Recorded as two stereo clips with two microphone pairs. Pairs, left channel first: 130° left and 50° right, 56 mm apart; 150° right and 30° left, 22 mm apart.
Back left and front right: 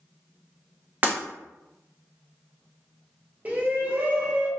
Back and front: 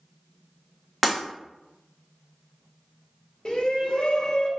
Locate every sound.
1.0 s breaking glass: 50° right, 0.8 m
3.5 s a shout: 105° right, 0.7 m